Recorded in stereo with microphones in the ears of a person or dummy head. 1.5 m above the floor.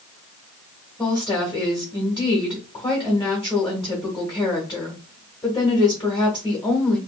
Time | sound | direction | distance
1.0 | a woman speaking | 15° left (ahead or behind) | 1.3 m